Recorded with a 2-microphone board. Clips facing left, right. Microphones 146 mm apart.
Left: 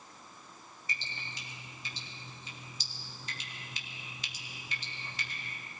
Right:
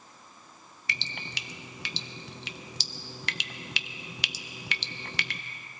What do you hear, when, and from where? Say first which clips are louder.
0.9 s dripping: right 5 dB; 75° right (ahead or behind), 0.5 m